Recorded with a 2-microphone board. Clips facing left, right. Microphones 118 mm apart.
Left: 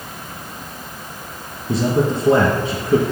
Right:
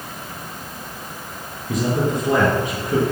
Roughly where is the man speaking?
Left.